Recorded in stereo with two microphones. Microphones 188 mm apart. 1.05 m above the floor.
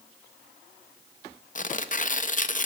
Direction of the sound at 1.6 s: 45° left (ahead or behind).